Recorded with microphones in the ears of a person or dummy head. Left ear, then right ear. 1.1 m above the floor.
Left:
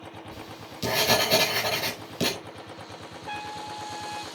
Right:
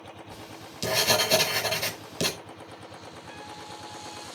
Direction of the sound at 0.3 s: 10° right (ahead or behind).